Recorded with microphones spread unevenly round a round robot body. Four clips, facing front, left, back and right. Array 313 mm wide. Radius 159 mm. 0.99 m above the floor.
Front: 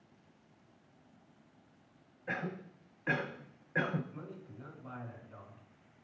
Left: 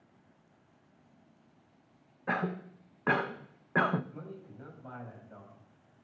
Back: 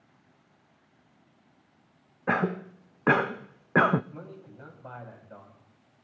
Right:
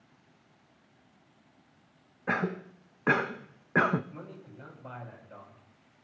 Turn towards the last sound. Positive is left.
turn(degrees=-150)